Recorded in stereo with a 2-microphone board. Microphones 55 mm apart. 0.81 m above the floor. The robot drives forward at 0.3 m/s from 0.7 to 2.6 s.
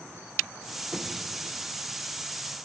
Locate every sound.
0.9 s knocking: 5° left (ahead or behind), 0.6 m